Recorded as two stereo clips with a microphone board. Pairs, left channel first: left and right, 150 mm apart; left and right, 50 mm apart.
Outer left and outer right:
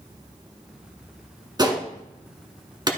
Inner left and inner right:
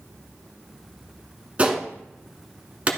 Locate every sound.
1.6 s a gunshot: 25° right (ahead or behind), 1.4 m